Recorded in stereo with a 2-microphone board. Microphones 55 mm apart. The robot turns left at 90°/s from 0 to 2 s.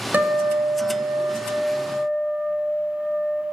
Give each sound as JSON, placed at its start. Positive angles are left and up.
{"t": 0.1, "sound": "a guitar", "azimuth_deg": -30, "distance_m": 5.5}